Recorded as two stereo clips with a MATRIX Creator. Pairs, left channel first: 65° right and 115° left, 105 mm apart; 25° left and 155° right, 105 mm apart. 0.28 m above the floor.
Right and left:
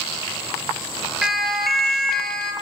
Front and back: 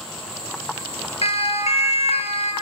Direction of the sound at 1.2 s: 25° left.